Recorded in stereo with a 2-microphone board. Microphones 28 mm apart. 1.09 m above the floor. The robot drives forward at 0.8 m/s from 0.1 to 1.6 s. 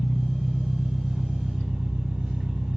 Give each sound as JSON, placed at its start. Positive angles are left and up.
{"t": 0.0, "sound": "an engine running", "side_deg": -25, "distance_m": 1.8}